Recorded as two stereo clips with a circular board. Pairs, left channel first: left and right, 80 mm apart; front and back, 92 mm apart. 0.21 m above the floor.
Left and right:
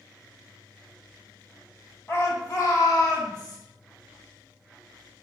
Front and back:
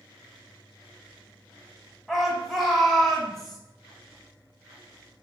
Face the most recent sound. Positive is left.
turn(degrees=90)